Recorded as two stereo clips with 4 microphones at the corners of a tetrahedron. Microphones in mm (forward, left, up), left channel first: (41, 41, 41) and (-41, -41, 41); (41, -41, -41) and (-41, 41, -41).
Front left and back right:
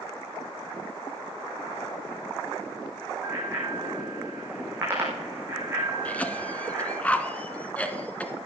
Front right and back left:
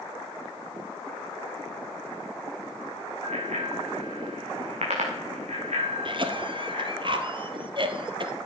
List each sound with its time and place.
3.2 s a bicycle bell: 155° left, 6 m
6.0 s a cough: 120° left, 1.7 m